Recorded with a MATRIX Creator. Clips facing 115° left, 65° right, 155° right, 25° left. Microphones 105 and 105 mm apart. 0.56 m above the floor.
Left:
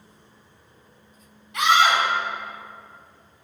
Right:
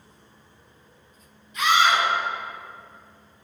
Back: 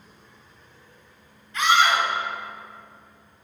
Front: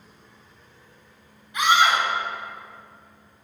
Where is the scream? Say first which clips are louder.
Left 1 dB, even; 100° left, 3 m.